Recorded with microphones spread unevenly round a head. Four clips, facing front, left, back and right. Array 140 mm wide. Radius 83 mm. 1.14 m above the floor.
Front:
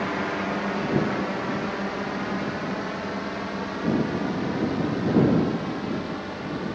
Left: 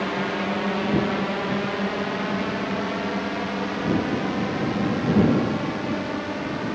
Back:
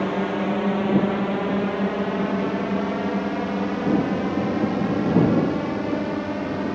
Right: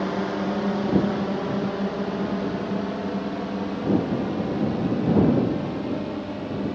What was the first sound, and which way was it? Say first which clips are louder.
A drone: even, back 4 dB; 170° right.